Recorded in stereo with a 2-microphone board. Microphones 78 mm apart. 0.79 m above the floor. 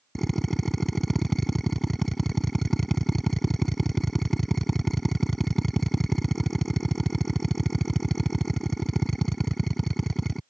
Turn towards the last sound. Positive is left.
turn(degrees=5)  # may be behind; listen again after turning